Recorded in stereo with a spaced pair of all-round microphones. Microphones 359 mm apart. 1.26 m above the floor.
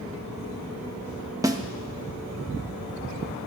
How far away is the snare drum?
About 0.5 m.